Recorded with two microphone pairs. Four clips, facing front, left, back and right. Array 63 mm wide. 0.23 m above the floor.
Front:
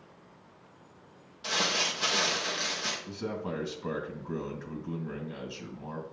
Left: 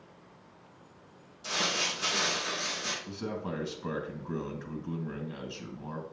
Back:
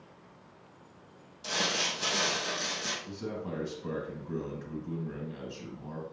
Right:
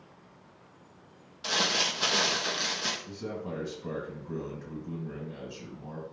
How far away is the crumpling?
About 3 m.